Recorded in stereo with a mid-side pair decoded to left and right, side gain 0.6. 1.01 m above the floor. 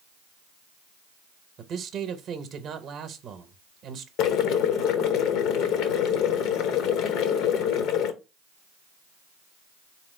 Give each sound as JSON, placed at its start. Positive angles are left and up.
{"t": 1.6, "sound": "a man speaking", "azimuth_deg": -55, "distance_m": 0.7}
{"t": 4.2, "sound": "boiling", "azimuth_deg": 65, "distance_m": 0.6}